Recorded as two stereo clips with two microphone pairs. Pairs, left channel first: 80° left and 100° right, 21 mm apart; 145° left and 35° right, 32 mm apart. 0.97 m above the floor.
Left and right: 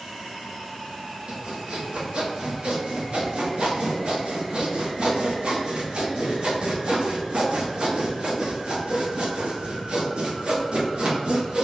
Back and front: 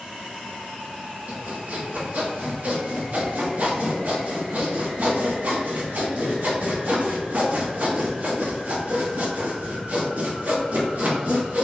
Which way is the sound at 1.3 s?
65° right.